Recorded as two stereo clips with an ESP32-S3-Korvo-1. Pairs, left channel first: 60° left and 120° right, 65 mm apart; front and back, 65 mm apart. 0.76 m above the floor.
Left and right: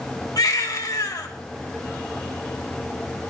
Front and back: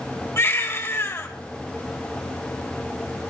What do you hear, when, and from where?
0.4 s a baby crying: 50° left, 2 m